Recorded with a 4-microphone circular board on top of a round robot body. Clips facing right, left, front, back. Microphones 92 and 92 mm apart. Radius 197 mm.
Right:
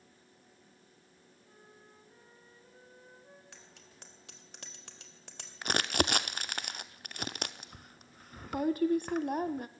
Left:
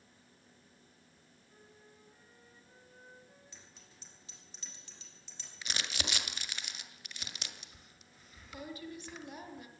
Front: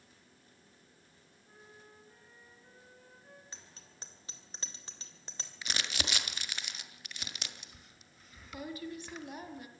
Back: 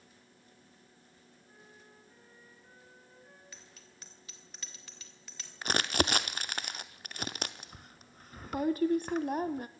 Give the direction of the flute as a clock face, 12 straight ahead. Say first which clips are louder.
Right 2 dB, front 2 dB; 3 o'clock.